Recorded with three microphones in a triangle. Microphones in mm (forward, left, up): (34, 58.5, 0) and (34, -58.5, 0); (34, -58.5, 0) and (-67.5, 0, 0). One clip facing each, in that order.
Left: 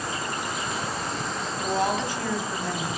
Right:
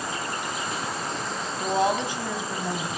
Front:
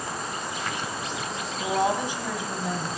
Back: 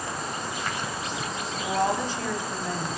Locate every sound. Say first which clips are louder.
1.6 s a woman speaking: right 2 dB, front 1 dB; 75° right, 1.4 m